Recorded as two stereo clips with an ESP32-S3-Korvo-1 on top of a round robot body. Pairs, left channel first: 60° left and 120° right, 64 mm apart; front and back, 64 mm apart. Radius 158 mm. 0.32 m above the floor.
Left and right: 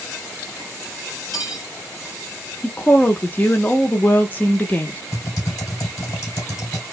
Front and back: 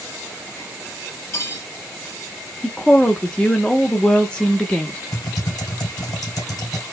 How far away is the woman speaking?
About 0.9 m.